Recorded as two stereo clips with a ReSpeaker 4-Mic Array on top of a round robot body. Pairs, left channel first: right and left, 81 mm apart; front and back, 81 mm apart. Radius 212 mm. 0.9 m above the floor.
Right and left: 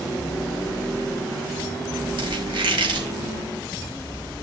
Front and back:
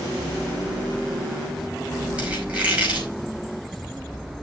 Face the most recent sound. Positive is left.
turn(degrees=105)